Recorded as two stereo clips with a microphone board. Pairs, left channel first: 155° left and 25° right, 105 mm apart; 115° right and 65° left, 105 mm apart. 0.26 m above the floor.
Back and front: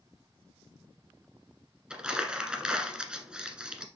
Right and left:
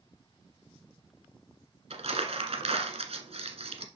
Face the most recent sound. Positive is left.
turn(degrees=60)